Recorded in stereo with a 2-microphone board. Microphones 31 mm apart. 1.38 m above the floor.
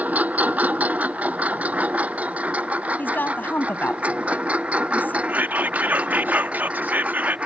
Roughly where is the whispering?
Right.